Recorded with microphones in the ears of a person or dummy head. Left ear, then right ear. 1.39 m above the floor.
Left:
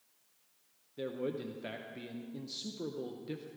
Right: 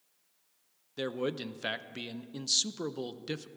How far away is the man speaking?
About 0.5 m.